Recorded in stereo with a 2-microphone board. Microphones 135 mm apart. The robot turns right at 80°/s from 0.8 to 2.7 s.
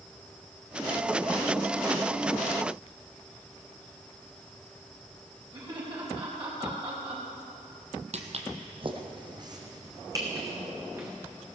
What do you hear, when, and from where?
5.5 s laughter: 35° right (ahead or behind), 4.5 m
8.1 s footsteps: 55° right (ahead or behind), 1.4 m; by 11.1 s 20° right (ahead or behind), 3.5 m